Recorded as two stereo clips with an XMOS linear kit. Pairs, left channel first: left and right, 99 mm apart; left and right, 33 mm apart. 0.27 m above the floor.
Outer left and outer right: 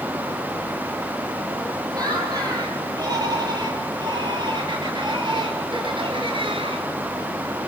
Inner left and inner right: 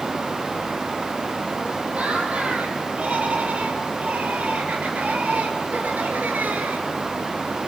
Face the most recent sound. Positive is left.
turn(degrees=-65)  # may be behind; listen again after turning